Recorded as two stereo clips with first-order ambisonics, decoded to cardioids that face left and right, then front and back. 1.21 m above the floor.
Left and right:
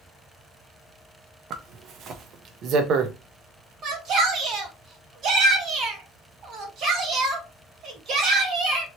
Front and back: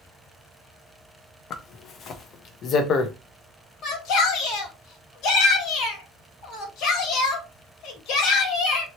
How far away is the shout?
About 1.3 m.